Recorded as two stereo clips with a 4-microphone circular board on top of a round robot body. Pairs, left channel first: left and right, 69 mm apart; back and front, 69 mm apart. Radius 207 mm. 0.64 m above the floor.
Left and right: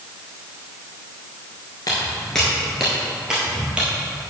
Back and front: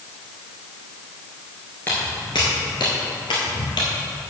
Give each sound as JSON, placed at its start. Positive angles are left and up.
{"t": 1.9, "sound": "footsteps", "azimuth_deg": 115, "distance_m": 0.6}